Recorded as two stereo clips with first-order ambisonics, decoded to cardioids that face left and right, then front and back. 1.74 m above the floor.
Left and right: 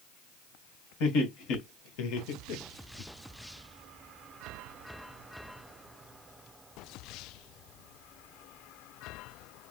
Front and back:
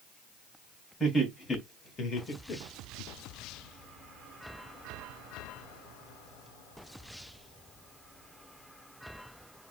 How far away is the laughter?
About 2 m.